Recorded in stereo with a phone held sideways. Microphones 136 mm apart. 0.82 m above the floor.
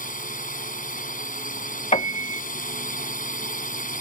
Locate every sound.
0.0 s a drone: 80° left
1.9 s a piano: 50° left (ahead or behind)